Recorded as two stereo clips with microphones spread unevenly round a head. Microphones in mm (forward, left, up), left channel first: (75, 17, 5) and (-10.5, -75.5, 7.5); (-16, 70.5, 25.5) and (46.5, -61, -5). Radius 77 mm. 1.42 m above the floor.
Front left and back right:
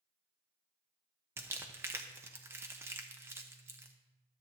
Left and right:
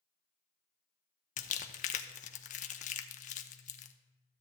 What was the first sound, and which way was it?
Crumpling, 155° left.